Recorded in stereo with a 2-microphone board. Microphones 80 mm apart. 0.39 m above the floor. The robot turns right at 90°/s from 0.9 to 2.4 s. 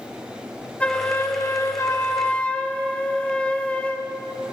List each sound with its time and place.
0.8 s a flute: 20° left, 0.9 m; by 4.1 s 155° left, 0.9 m